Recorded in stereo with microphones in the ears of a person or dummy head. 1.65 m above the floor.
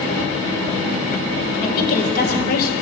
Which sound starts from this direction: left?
A woman speaking, at 1.6 s.